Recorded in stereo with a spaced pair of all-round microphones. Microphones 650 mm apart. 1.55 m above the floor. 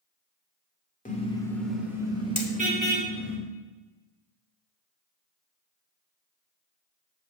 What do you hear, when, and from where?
1.1 s a car horn: 10° left (ahead or behind), 2.5 m; by 3.4 s 20° right (ahead or behind), 4 m
2.4 s hammering: 45° left (ahead or behind), 1.6 m